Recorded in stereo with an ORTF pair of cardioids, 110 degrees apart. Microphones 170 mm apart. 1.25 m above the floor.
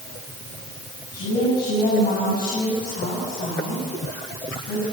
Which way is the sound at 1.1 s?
60° left.